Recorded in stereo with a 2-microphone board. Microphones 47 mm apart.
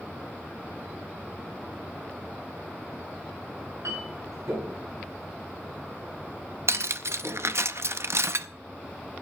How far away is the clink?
About 9 m.